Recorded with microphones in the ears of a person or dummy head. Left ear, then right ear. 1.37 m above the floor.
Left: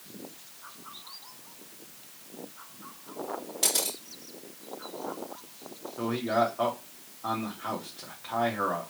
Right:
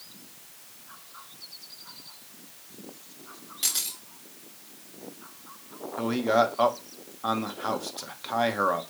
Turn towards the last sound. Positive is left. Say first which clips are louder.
# right 4 dB
turn(degrees=-85)